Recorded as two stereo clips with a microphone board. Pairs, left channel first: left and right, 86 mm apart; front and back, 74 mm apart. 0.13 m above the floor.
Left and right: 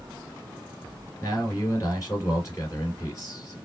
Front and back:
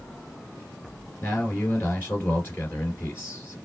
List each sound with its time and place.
1.2 s a man speaking: 55° left, 2.5 m